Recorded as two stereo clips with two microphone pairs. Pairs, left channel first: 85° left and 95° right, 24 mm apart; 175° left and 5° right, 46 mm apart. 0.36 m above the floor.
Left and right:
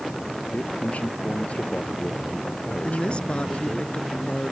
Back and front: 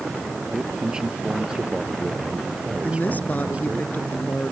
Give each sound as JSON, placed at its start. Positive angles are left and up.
{"t": 0.5, "sound": "a man speaking", "azimuth_deg": 70}
{"t": 2.8, "sound": "a woman speaking", "azimuth_deg": 125}